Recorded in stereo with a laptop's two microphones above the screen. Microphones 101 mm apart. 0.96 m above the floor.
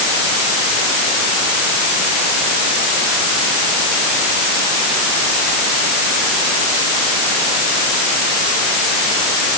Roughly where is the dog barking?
No dog barking in this recording.